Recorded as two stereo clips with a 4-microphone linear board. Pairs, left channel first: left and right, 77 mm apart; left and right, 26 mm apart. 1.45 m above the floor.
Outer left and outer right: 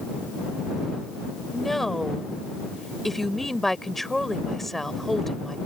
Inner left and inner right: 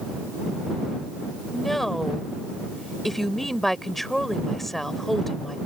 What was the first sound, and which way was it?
A woman speaking, 5° left (ahead or behind).